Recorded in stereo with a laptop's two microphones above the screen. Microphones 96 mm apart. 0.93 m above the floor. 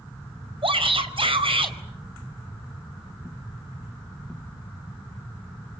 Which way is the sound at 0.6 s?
70° right (ahead or behind).